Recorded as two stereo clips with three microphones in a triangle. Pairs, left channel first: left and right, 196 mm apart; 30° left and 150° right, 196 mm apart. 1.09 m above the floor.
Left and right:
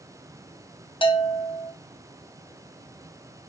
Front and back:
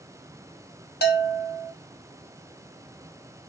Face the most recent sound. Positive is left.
turn(degrees=35)